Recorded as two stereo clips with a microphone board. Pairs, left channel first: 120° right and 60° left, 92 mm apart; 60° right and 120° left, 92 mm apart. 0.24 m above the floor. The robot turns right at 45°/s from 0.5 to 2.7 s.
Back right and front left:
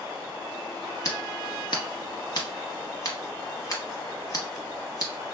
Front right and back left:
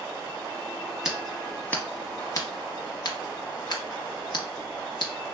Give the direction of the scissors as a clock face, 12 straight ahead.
5 o'clock.